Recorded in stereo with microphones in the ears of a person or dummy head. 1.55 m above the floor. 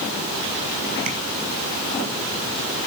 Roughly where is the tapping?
Right.